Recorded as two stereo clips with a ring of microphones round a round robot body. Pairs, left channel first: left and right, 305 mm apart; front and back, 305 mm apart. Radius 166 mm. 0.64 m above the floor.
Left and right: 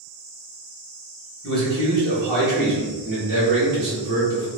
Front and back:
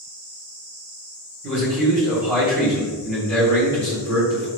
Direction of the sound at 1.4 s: 130° right.